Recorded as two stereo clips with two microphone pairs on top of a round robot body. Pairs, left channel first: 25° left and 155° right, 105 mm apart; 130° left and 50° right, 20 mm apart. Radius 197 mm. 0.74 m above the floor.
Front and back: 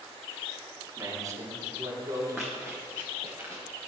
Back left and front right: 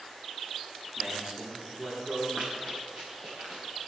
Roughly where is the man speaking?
Right.